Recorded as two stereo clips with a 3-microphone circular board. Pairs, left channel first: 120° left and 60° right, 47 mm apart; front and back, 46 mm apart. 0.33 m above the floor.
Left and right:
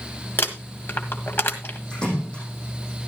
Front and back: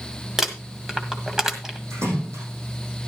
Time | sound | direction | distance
0.4 | crumpling | 100° left | 1.8 m
1.9 | a splash | 170° right | 7 m